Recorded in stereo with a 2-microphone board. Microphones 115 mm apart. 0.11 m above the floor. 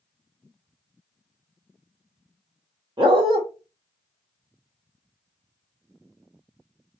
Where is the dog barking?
45° right (ahead or behind), 1.1 m.